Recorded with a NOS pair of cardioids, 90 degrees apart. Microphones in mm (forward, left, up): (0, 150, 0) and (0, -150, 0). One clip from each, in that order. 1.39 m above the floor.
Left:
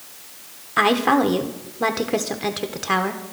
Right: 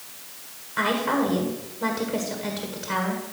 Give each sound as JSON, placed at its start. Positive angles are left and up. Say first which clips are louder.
{"t": 0.8, "sound": "a woman speaking", "louder": "left 6 dB", "azimuth_deg": 60, "distance_m": 1.3}